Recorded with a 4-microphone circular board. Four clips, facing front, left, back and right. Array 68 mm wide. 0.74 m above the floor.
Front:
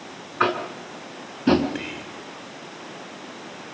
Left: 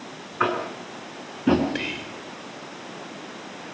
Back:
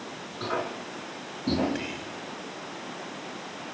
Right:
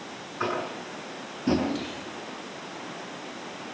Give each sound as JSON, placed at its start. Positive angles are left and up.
{"t": 0.4, "sound": "tapping", "azimuth_deg": 30, "distance_m": 5.5}
{"t": 1.8, "sound": "whispering", "azimuth_deg": 80, "distance_m": 2.5}